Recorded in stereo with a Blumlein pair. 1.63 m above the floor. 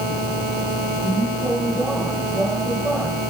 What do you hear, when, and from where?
0.0 s a vehicle: 5° right